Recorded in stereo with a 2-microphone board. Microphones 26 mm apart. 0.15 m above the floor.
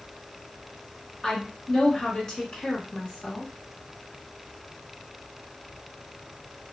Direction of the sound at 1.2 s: 15° left (ahead or behind).